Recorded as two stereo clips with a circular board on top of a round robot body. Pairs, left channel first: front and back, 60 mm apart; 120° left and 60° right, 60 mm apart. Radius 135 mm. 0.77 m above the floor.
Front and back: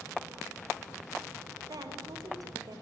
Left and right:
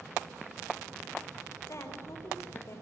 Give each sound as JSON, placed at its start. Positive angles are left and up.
{"t": 1.7, "sound": "a woman speaking", "azimuth_deg": 165, "distance_m": 5.0}